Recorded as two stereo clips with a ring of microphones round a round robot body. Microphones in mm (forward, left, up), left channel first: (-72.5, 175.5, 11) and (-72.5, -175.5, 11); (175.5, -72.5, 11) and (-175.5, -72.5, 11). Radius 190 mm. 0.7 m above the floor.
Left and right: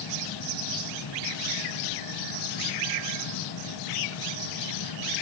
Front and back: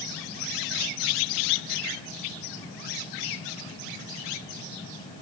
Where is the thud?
No thud in this recording.